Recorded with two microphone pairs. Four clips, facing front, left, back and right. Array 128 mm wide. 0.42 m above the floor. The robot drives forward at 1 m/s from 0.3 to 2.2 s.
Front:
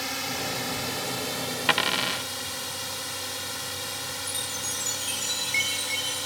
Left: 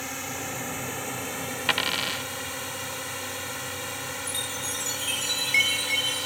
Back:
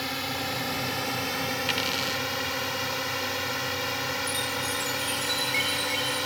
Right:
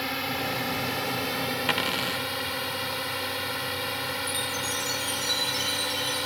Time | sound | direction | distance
0.0 | a drone | 95° right | ?
1.7 | a dropped coin | 10° left | ?
4.3 | a chime | 80° left | ?